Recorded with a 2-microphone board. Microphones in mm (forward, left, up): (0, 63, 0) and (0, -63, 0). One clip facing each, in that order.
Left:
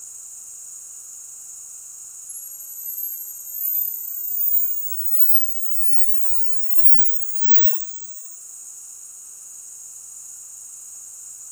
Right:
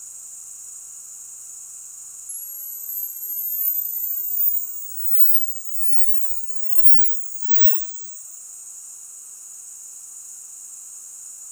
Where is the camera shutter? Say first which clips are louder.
Even; 50° right (ahead or behind), 1.5 m.